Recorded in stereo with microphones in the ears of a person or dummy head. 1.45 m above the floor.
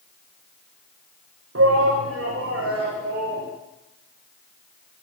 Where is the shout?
80° right, 1.7 m; by 3.5 s 70° right (ahead or behind), 3.5 m.